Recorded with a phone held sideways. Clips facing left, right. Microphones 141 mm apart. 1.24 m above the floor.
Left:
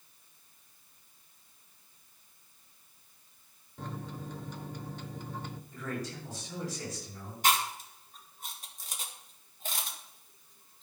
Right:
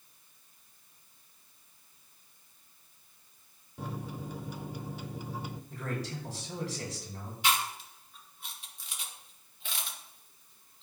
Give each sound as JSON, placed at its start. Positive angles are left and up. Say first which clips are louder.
{"t": 3.8, "sound": "a microwave", "louder": "right 2 dB", "side_deg": -10, "distance_m": 0.6}
{"t": 5.7, "sound": "a man speaking", "louder": "even", "side_deg": -75, "distance_m": 6.0}
{"t": 7.4, "sound": "chewing", "louder": "left 2 dB", "side_deg": 45, "distance_m": 2.0}